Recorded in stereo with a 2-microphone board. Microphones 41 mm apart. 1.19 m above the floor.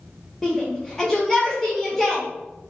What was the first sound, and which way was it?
A shout, 5° left (ahead or behind).